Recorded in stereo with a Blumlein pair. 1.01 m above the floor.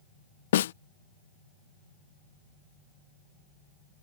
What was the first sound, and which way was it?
A snare drum, 60° left.